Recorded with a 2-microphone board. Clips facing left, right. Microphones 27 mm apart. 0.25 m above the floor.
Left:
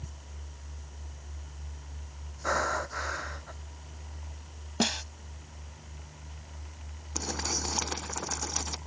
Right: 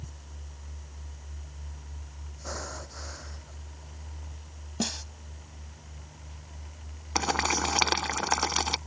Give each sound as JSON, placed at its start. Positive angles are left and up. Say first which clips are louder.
{"t": 2.4, "sound": "breathing", "louder": "left 10 dB", "side_deg": 50}
{"t": 4.8, "sound": "a snare drum", "louder": "left 4 dB", "side_deg": 35}
{"t": 7.2, "sound": "boiling", "louder": "right 7 dB", "side_deg": -60}